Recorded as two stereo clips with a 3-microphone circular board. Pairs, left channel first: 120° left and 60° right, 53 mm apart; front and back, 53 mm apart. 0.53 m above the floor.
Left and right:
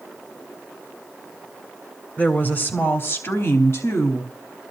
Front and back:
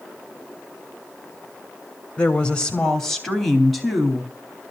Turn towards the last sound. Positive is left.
turn(degrees=95)